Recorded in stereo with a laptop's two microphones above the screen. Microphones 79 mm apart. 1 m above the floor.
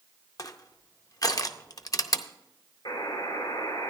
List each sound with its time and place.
0.4 s crushing: 50° left (ahead or behind), 0.5 m
2.9 s a buzzer: 70° left (ahead or behind), 3 m